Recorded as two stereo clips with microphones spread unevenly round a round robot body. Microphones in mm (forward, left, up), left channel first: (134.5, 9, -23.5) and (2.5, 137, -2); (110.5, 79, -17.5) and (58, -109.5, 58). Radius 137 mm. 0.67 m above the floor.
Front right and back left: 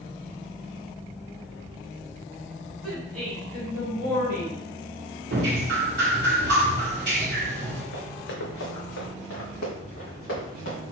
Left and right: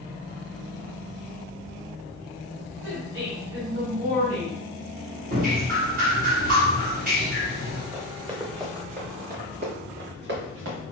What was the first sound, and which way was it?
A woman speaking, 165° right.